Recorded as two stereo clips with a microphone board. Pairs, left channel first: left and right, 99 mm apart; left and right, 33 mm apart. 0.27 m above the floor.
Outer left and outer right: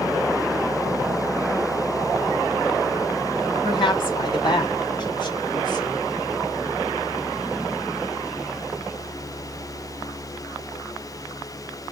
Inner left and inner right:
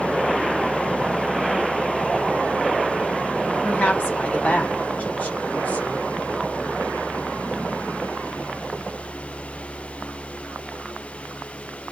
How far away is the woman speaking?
About 3 m.